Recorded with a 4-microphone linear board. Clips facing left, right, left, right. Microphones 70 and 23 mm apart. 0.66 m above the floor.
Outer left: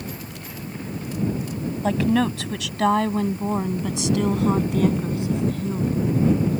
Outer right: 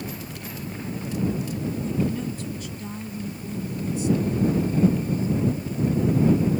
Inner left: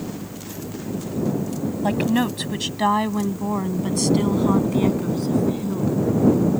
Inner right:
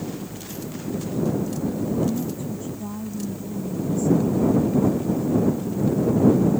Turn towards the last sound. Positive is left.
turn(degrees=70)  # may be behind; listen again after turning